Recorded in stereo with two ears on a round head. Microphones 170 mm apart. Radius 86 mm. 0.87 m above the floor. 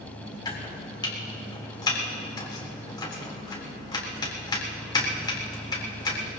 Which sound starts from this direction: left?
Chopping, at 0.5 s.